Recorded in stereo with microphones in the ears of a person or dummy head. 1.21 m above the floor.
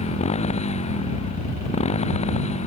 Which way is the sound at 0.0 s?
35° left (ahead or behind).